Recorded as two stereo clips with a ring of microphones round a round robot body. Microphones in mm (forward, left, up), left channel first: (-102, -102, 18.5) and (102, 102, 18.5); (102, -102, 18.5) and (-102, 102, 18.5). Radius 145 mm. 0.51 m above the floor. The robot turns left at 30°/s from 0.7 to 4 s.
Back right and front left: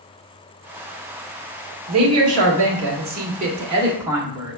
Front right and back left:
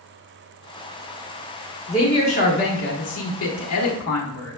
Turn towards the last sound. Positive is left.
turn(degrees=-35)